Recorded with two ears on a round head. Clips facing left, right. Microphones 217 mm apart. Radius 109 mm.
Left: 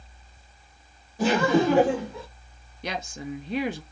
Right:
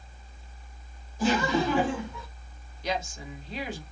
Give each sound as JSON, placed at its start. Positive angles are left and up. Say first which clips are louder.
{"t": 1.2, "sound": "laughter", "louder": "left 4 dB", "side_deg": 50, "distance_m": 1.1}
{"t": 2.8, "sound": "a woman speaking", "louder": "even", "side_deg": 50, "distance_m": 0.9}